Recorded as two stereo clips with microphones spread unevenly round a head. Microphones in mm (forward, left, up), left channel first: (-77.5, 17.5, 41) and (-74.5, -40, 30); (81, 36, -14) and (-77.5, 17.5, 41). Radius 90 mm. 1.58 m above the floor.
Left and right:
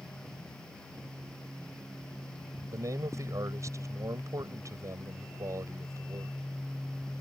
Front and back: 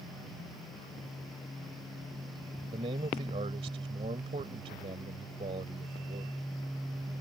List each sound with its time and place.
2.7 s a man speaking: 115° right